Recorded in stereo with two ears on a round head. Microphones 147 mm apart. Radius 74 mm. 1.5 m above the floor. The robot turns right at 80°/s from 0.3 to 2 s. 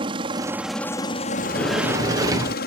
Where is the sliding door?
150° left; by 2.6 s 155° right.